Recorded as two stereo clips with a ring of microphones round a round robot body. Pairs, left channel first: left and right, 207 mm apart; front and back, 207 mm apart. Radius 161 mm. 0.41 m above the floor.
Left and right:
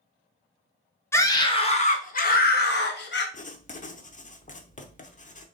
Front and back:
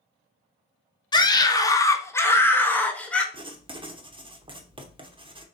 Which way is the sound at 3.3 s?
125° left.